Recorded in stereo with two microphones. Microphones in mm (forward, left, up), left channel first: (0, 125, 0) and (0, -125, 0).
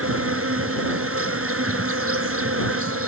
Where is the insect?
55° right (ahead or behind).